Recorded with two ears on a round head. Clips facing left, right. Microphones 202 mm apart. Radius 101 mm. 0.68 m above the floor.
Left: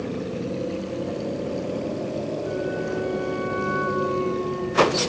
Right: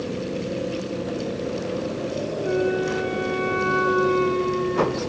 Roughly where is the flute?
Right.